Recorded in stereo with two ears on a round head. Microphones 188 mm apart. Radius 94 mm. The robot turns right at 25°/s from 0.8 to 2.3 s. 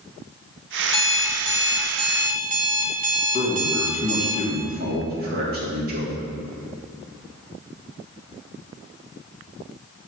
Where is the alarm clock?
80° right, 1.0 m; by 4.3 s 45° right, 1.0 m.